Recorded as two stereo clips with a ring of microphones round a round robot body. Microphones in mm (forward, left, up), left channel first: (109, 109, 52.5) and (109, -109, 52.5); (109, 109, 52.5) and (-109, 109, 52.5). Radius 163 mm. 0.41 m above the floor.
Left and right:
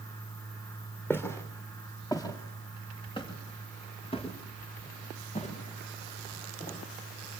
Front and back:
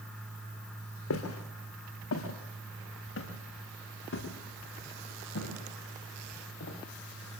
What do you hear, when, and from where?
1.1 s footsteps: 10° left, 6.5 m; by 6.8 s 35° left, 9.5 m